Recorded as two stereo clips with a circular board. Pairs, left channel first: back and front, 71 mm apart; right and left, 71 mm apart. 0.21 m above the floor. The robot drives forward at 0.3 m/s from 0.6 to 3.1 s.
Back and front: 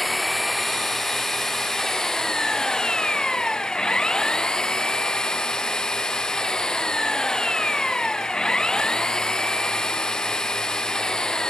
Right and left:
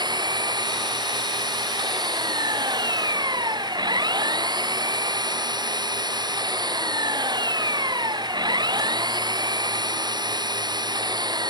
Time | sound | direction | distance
0.0 | an engine running | 90° left | ?